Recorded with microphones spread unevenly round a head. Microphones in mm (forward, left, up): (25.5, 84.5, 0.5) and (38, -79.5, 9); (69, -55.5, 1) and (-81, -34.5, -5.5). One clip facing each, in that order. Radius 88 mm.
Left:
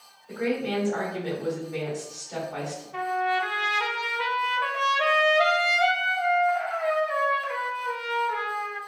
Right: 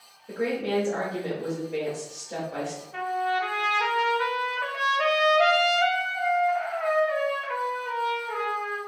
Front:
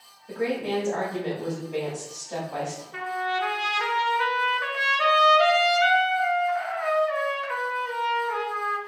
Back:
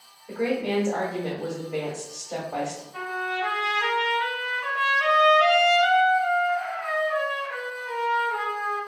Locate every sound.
0.3 s a woman speaking: 115° right, 1.2 m
2.9 s a trumpet: 5° left, 0.6 m